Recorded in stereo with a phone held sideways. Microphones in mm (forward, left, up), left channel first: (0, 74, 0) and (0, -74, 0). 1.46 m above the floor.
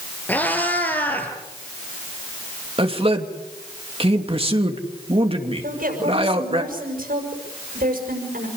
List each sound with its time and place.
0.3 s a cat meowing: 10° left (ahead or behind), 5.5 m
2.8 s a man speaking: 40° right (ahead or behind), 3 m
5.6 s a woman speaking: 75° right (ahead or behind), 6 m